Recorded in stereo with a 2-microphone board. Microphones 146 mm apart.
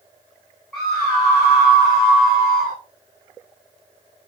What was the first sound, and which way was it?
A scream, centre (ahead or behind).